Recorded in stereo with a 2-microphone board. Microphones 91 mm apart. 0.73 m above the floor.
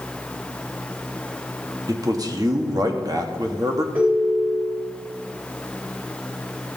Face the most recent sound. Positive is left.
turn(degrees=-20)  # may be behind; listen again after turning